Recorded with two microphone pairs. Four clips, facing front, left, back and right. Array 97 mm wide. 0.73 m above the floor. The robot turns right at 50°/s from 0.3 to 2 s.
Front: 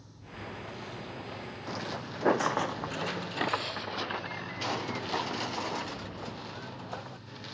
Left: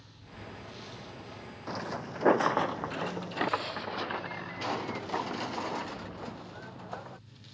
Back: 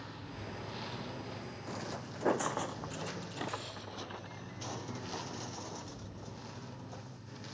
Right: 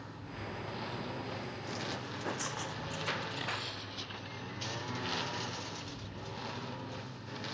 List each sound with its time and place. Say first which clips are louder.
0.0 s a lawn mower: right 4 dB, even; 140° right; by 7.5 s 70° right
1.7 s footsteps: left 7 dB, front 5 dB; 65° left; by 7.2 s 45° left